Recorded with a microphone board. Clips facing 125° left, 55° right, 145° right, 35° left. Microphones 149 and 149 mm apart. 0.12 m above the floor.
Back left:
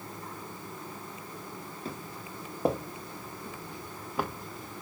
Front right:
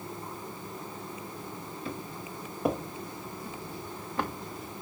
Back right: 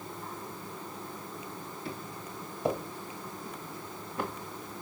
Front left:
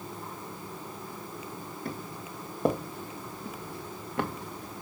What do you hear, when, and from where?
1.9 s footsteps: 75° left, 3 m; by 4.8 s 25° left, 1.5 m